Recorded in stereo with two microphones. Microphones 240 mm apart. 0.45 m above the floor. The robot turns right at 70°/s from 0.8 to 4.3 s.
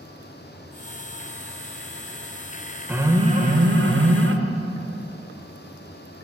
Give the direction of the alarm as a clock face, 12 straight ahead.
6 o'clock.